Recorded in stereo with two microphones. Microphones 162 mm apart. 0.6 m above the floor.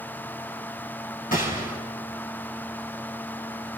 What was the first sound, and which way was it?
A gunshot, 60° left (ahead or behind).